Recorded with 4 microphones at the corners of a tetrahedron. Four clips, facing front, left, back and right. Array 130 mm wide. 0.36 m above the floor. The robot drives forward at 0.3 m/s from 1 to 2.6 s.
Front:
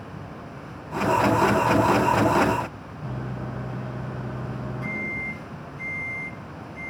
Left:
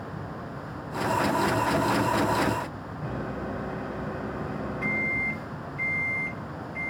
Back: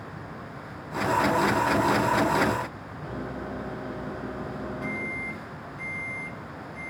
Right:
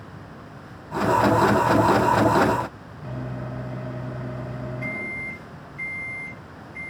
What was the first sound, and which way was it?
A microwave, 95° left.